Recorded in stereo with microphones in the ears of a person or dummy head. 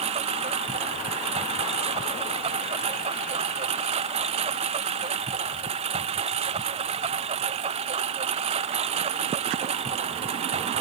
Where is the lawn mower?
35° right (ahead or behind).